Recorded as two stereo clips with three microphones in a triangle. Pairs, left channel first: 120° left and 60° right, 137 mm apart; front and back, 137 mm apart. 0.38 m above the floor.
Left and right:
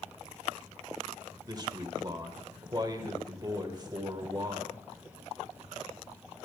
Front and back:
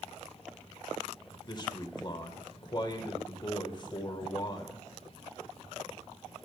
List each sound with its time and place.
1.5 s a man speaking: 25° right, 1.4 m